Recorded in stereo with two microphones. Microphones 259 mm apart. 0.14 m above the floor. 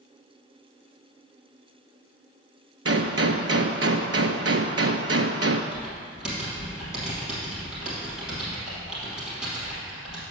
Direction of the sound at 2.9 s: 70° right (ahead or behind).